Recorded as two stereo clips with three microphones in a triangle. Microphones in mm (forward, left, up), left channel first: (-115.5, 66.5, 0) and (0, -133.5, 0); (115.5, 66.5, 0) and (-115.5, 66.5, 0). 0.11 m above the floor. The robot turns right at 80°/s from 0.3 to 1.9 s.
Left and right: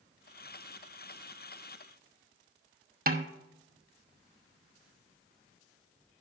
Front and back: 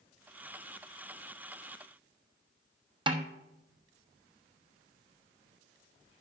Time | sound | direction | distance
3.1 | a snare drum | 115° right | 0.7 m